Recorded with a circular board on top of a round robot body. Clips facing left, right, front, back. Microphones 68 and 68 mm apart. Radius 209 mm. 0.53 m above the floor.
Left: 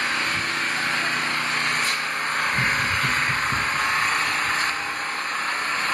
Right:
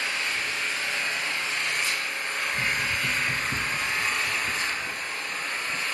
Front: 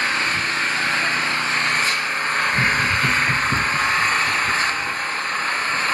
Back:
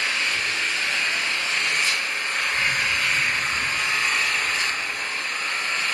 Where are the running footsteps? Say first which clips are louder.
Left 5 dB, front 5 dB; 25° left, 2 m; by 5.8 s 45° right, 4 m.